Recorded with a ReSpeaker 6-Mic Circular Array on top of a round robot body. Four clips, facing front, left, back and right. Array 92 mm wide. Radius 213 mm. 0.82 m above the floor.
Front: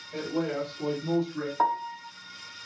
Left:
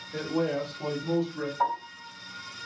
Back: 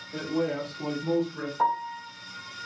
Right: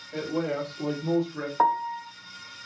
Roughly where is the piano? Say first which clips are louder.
Right 7 dB, back 1 dB; right.